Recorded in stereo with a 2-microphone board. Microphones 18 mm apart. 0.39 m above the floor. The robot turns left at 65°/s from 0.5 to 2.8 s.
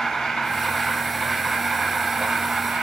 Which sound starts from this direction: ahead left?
An insect, at 0.0 s.